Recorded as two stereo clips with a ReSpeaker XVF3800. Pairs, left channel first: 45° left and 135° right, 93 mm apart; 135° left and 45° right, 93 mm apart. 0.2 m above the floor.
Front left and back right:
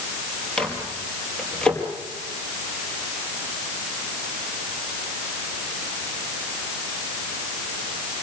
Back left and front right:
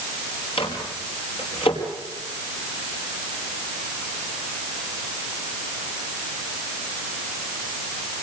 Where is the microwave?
125° left, 5 m.